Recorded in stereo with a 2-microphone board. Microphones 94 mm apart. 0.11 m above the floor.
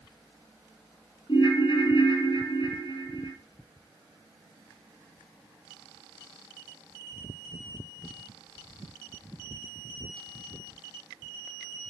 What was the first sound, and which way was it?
A ringtone, 50° left (ahead or behind).